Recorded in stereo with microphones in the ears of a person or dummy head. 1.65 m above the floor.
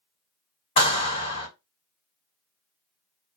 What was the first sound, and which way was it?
A clap, 35° left (ahead or behind).